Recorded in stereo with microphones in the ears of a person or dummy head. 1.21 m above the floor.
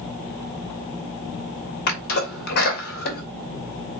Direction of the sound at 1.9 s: 60° left (ahead or behind).